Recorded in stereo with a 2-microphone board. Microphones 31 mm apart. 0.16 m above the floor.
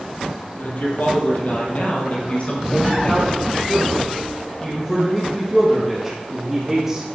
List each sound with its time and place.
0.6 s a man speaking: 60° left (ahead or behind), 5.5 m; by 7.0 s 5° right (ahead or behind), 5.5 m